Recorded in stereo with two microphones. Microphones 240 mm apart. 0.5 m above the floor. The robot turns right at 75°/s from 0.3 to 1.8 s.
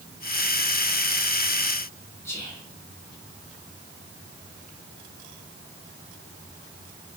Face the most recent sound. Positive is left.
turn(degrees=10)  # may be behind; listen again after turning